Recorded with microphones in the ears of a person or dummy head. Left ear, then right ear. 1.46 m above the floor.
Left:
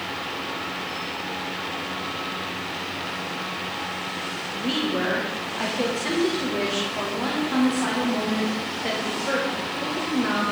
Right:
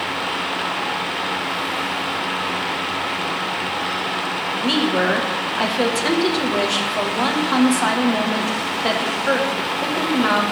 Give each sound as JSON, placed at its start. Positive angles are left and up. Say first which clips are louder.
{"t": 4.5, "sound": "a woman speaking", "louder": "right 6 dB", "side_deg": -40, "distance_m": 1.7}